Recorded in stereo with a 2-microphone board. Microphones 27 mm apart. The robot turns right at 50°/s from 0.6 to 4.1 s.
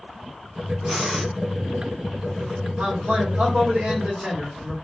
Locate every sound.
0.9 s breathing: 5° left (ahead or behind), 1.1 m; by 1.3 s 15° right (ahead or behind), 1.1 m
2.8 s a man speaking: 105° right, 1.5 m; by 4.7 s 40° right, 1.5 m